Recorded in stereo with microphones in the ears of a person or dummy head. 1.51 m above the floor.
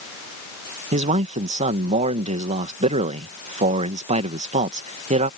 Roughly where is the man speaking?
Right.